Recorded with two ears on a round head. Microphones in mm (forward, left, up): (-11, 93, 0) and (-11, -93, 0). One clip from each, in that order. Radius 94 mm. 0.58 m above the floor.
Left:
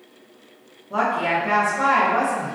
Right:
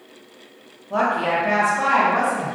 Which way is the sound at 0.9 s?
20° right (ahead or behind).